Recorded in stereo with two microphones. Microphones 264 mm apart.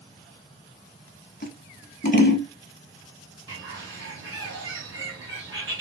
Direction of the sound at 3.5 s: 45° right (ahead or behind).